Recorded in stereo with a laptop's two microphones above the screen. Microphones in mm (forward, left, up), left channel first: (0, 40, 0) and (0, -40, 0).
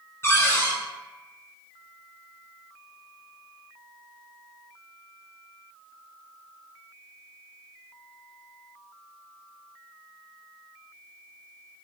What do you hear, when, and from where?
0.2 s a cupboard door: 30° left (ahead or behind), 0.7 m